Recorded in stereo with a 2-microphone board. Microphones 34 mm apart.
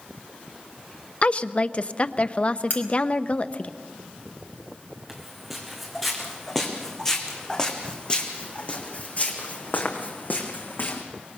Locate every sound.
1.2 s a woman speaking: 40° left (ahead or behind), 0.7 m
2.7 s cutlery clinking: 60° left (ahead or behind), 3 m
5.1 s footsteps: 5° right (ahead or behind), 4.5 m; by 11.0 s 65° left (ahead or behind), 3.5 m